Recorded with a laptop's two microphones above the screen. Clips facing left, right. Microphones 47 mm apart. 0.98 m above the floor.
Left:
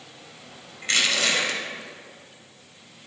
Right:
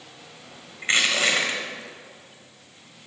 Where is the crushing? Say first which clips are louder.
Right 2 dB; 30° right (ahead or behind), 4.5 m.